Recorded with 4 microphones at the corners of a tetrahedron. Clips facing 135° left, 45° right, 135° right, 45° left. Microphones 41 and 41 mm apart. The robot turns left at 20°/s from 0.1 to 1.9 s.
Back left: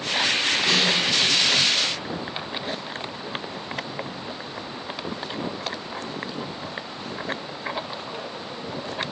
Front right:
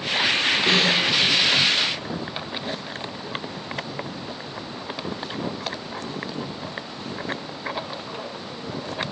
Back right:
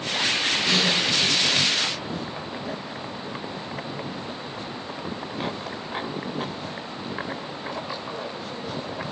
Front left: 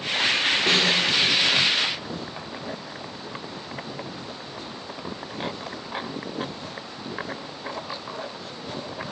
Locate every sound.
0.7 s a snare drum: 15° left, 2 m; by 1.1 s 5° left, 2 m